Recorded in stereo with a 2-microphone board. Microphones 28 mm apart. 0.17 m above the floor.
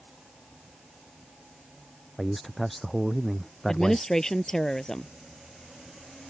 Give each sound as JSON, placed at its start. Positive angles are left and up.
{"t": 2.2, "sound": "a man speaking", "side_deg": 0}
{"t": 3.7, "sound": "a woman speaking", "side_deg": 15}